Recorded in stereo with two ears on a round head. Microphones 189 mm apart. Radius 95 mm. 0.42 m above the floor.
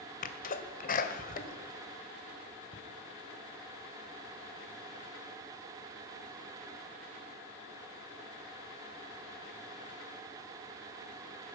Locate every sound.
0.2 s a sneeze: 40° left (ahead or behind), 2 m